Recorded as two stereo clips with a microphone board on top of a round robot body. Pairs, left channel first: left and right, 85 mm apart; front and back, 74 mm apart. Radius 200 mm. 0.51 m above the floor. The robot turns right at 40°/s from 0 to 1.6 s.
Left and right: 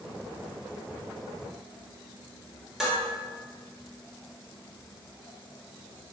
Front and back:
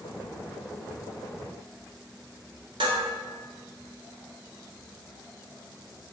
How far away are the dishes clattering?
About 1.4 m.